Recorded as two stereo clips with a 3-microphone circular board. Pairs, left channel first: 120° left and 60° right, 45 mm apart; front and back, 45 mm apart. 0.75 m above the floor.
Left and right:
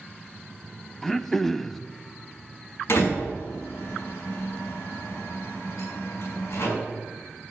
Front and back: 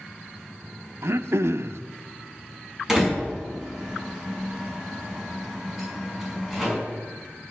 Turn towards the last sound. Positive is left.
turn(degrees=100)